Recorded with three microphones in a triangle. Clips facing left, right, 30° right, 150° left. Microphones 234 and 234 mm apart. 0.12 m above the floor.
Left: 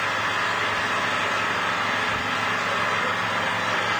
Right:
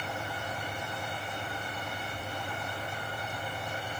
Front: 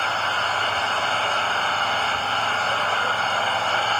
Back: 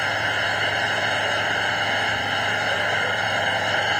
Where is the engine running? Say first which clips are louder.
Left 6 dB, back 1 dB; 75° left.